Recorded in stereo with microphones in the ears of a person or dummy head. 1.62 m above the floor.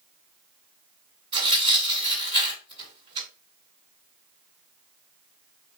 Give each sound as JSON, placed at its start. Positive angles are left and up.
{"t": 1.3, "sound": "tearing paper", "side_deg": -30, "distance_m": 2.5}